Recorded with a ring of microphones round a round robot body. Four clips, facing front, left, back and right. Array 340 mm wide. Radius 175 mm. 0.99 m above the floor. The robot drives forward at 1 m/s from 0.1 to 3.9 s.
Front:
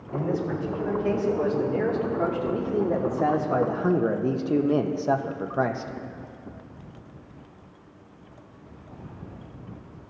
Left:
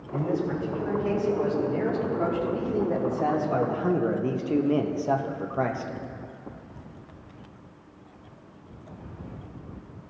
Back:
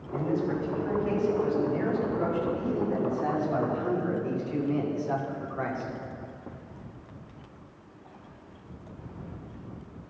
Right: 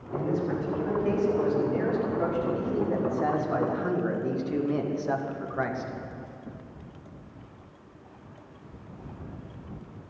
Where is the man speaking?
5° left, 4.5 m; by 5.9 s 20° left, 0.9 m.